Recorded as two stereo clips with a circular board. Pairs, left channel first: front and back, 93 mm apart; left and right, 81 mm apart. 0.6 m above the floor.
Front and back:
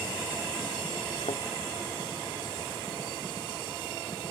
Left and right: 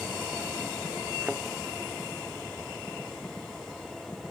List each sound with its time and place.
1.2 s a thud: 20° right